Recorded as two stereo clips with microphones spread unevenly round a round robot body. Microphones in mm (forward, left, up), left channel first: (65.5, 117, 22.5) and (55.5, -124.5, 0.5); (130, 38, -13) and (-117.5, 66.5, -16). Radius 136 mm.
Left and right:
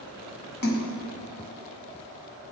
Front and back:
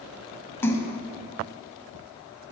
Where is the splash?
75° left, 1.4 m.